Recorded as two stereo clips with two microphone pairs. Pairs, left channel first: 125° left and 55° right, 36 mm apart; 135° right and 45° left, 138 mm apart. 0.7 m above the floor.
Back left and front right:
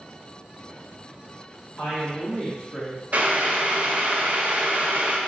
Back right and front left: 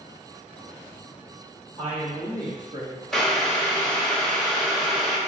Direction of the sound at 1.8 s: 105° left.